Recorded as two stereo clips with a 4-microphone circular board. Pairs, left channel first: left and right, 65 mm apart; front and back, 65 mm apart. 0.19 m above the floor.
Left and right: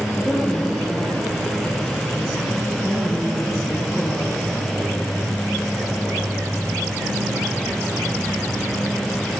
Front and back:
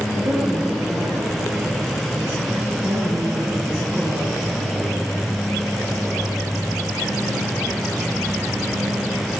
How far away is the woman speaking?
About 4.5 m.